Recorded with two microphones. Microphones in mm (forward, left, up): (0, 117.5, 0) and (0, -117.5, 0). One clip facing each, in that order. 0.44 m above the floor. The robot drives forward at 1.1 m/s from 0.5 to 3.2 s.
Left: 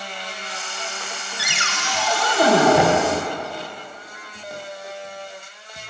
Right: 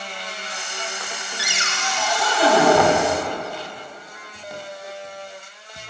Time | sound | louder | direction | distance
1.4 | a cupboard door | even | 55° left (ahead or behind) | 0.9 m
2.7 | knocking | even | 20° left (ahead or behind) | 0.9 m